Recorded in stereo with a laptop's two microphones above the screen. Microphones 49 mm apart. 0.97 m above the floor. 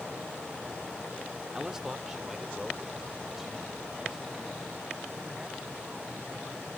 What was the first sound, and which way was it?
A man speaking, 15° right (ahead or behind).